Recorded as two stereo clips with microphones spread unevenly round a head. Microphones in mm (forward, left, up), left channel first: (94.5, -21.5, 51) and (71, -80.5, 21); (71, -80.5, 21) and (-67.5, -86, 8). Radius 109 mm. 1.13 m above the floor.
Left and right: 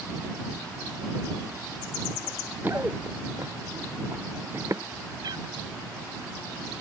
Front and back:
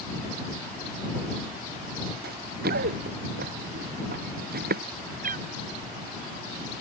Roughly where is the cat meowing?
Behind.